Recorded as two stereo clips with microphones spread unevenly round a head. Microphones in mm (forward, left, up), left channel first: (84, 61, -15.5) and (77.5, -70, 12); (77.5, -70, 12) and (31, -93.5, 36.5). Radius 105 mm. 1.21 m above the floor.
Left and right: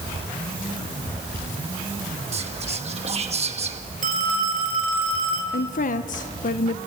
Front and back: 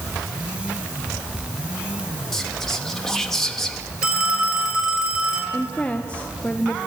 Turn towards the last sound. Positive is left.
turn(degrees=90)